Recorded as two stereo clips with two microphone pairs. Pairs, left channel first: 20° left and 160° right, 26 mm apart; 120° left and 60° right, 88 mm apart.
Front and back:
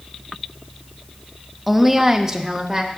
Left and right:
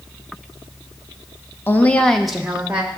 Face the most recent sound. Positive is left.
turn(degrees=-125)